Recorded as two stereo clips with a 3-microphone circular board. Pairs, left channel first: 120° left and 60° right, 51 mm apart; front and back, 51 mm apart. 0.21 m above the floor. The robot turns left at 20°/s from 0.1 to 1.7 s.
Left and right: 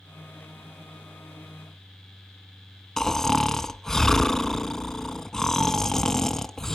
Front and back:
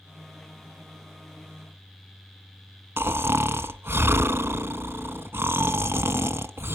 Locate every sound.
3.0 s snoring: 160° right, 0.7 m